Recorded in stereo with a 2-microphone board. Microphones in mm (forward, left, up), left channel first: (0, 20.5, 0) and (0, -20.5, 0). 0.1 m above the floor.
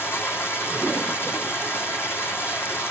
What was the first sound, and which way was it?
Running water, 75° left (ahead or behind).